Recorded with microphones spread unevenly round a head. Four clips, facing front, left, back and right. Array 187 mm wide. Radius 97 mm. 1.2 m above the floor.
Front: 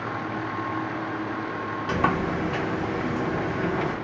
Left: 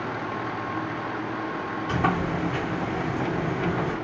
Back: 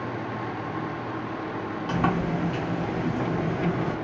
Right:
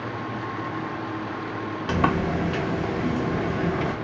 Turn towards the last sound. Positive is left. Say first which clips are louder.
# right 2 dB, front 1 dB
turn(degrees=-80)